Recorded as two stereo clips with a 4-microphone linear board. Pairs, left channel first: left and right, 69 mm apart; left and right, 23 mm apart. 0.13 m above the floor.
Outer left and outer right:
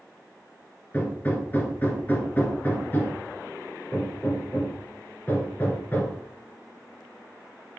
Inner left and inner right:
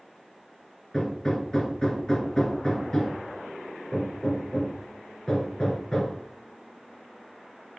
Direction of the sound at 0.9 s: 30° left (ahead or behind).